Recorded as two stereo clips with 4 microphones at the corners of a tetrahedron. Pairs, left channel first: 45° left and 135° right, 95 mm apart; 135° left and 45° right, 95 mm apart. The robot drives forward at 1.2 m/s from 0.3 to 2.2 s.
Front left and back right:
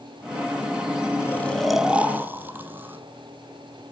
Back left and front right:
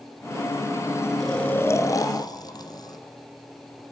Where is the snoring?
50° left, 0.9 m; by 3.9 s 160° left, 1.3 m.